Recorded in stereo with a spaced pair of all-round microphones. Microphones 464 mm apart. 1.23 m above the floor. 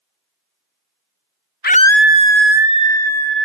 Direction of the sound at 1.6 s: 20° left (ahead or behind).